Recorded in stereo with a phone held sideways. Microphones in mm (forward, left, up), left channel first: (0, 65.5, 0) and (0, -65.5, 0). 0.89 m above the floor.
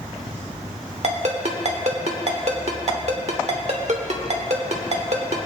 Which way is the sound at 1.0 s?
55° right (ahead or behind).